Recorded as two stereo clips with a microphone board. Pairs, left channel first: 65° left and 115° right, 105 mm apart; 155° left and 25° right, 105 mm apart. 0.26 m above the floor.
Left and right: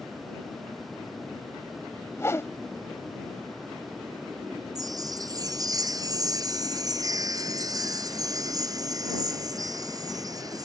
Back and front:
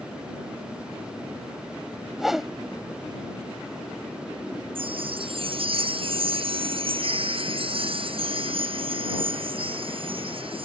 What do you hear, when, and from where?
2.2 s a whoosh: 60° left
4.8 s a chime: 55° right